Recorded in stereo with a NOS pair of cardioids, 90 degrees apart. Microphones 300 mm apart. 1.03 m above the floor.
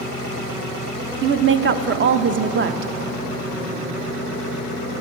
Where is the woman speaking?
40° right, 0.7 m.